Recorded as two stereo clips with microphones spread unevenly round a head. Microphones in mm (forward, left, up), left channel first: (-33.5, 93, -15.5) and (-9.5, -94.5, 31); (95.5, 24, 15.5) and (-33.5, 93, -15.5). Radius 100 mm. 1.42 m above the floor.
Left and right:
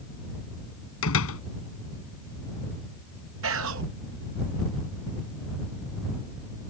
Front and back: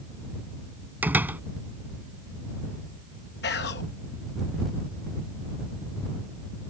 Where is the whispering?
55° right.